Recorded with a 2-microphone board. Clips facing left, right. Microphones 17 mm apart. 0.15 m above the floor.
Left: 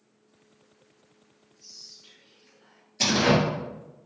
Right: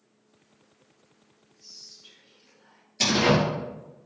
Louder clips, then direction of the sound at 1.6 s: Even; 5° left (ahead or behind).